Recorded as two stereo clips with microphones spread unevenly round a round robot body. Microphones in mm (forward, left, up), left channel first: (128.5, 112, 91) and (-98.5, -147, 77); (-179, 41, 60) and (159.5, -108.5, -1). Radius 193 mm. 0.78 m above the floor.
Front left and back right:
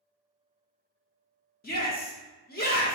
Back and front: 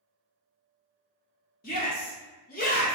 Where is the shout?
90° left, 1.1 m.